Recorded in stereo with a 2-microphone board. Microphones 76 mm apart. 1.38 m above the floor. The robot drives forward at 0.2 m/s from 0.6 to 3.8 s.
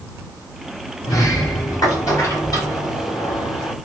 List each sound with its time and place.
1.0 s a sliding door: 50° left (ahead or behind), 1.6 m